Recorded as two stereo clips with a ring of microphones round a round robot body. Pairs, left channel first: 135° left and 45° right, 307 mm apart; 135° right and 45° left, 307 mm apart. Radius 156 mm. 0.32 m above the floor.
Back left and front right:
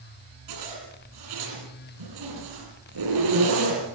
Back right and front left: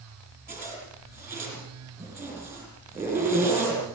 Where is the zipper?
40° right, 9.5 m.